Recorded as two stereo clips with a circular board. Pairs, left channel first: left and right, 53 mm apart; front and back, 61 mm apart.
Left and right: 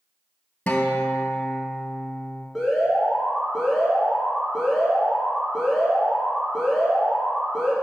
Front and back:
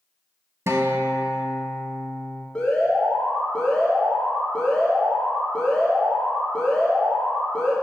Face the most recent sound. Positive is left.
turn(degrees=-10)